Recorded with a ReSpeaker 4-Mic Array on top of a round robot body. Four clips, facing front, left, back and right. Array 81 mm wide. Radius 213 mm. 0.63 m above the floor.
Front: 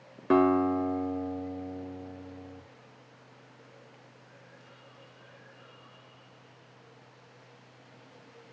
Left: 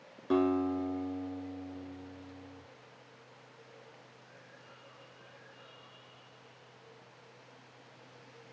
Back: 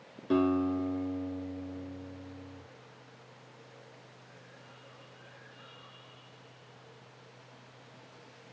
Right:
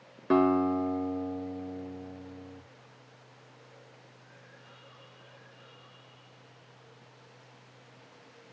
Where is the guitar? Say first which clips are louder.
Right 5 dB, front 4 dB; 25° right, 3 m.